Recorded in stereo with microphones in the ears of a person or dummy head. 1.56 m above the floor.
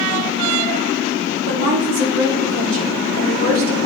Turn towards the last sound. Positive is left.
turn(degrees=-85)